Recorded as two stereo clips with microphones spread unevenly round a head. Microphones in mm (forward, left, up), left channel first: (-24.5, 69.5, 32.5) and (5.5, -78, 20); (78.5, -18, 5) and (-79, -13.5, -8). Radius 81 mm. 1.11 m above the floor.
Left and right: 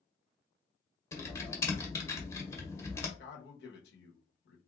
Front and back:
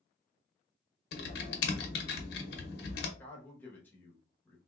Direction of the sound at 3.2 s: 80° left.